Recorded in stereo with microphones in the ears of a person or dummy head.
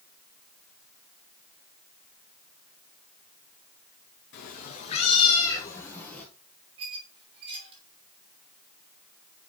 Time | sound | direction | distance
4.3 | a cat meowing | 50° left (ahead or behind) | 1.7 m
6.8 | a squeak | 30° right (ahead or behind) | 3 m